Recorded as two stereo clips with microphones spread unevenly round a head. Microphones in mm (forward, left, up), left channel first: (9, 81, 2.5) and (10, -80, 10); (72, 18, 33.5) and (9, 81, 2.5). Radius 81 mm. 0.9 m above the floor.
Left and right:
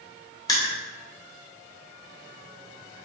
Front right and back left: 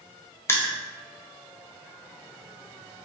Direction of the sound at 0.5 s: 25° left.